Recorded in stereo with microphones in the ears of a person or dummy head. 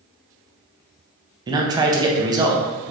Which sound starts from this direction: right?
A man speaking, at 1.5 s.